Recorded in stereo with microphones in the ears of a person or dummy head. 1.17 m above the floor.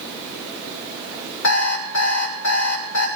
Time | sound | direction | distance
1.4 | an alarm clock | 50° left (ahead or behind) | 2.5 m